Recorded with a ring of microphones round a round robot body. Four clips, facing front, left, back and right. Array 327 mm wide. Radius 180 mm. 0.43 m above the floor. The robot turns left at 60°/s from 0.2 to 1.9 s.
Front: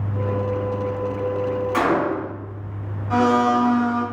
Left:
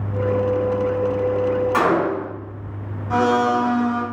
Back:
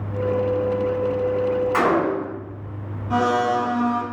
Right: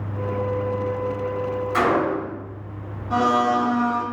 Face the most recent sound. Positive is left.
turn(degrees=75)